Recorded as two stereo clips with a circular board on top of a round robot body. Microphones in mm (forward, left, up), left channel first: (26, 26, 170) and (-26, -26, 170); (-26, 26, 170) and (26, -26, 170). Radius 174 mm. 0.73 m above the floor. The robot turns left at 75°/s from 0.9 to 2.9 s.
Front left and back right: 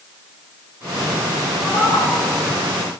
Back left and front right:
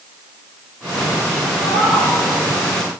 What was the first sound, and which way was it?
A cat meowing, 40° right.